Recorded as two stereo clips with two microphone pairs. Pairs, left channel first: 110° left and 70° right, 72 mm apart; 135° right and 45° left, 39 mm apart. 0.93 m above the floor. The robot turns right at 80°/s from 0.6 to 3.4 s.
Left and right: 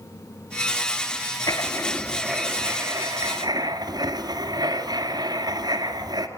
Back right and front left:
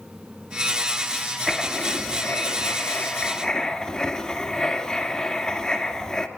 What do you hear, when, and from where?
1.5 s writing: 135° left, 2 m; by 6.3 s 70° right, 2 m